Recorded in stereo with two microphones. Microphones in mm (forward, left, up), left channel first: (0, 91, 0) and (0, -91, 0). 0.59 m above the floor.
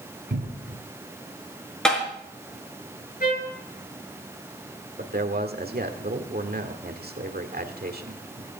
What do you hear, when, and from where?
0.3 s a cupboard door: 75° right (ahead or behind), 1.7 m
1.9 s tapping: 5° left (ahead or behind), 5.5 m
3.2 s a trumpet: 50° left (ahead or behind), 8 m
5.0 s a man speaking: 60° right (ahead or behind), 1.7 m